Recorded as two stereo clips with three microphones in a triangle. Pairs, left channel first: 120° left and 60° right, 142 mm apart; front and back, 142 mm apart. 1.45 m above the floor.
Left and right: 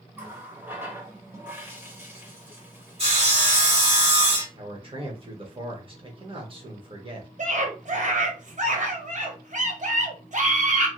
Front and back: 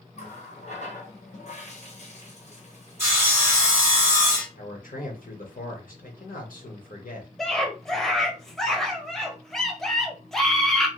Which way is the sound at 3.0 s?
110° right.